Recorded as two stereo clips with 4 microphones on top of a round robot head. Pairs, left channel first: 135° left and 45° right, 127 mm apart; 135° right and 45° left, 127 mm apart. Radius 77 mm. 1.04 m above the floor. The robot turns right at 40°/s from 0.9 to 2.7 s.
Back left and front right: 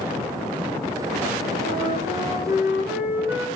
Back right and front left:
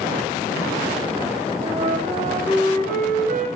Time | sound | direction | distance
1.6 | a flute | 5° right | 5 m